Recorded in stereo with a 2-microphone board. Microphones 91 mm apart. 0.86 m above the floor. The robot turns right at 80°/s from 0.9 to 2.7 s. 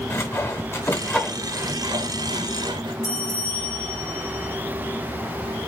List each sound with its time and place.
0.1 s sawing: 25° left (ahead or behind), 1.1 m; by 2.9 s 60° right (ahead or behind), 1.1 m
3.0 s a bell: 40° left (ahead or behind), 2 m